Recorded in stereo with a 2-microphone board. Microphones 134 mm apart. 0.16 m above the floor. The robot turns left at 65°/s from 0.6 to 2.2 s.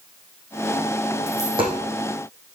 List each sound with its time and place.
1.3 s a dropped coin: 20° right (ahead or behind), 3.5 m; by 1.8 s 50° right (ahead or behind), 3.5 m